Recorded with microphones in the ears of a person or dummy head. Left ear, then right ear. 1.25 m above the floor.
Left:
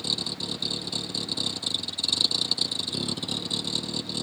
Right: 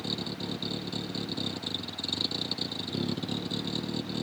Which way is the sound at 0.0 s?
25° left (ahead or behind).